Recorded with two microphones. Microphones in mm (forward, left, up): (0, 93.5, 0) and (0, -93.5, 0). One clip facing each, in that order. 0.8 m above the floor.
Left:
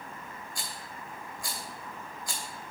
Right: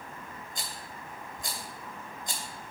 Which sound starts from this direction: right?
A rattle, at 0.6 s.